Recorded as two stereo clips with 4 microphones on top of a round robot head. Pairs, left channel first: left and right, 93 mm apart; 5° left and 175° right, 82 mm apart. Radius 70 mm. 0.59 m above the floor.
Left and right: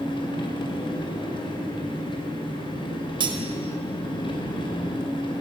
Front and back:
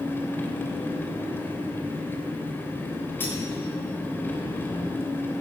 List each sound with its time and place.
0.0 s an engine running: 70° left, 2.5 m
3.2 s cutlery clinking: 65° right, 1.5 m